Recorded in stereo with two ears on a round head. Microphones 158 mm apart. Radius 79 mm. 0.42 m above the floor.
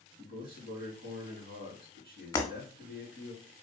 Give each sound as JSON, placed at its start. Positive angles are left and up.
{"t": 0.2, "sound": "a man speaking", "side_deg": -70, "distance_m": 2.5}
{"t": 2.3, "sound": "breaking glass", "side_deg": 25, "distance_m": 1.3}